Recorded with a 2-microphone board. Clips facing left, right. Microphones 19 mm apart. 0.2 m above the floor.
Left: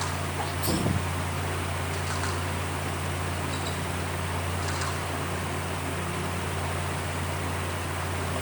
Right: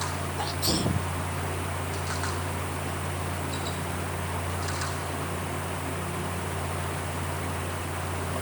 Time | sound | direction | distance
0.4 | a sneeze | 40° right (ahead or behind) | ?